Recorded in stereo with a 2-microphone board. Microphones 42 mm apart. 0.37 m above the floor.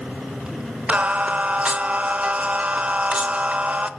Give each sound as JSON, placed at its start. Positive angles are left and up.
{"t": 0.9, "sound": "singing", "side_deg": -35, "distance_m": 0.9}